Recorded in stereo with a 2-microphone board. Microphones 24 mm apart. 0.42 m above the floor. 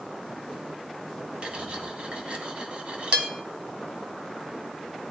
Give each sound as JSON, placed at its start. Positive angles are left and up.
{"t": 1.4, "sound": "cutlery clinking", "side_deg": -50, "distance_m": 1.5}